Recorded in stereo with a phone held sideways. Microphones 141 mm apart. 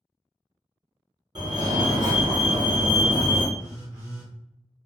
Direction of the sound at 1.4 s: 35° right (ahead or behind).